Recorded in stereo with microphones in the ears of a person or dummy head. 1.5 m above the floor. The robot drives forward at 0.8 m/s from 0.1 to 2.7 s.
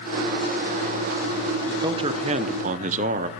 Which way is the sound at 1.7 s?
20° right (ahead or behind).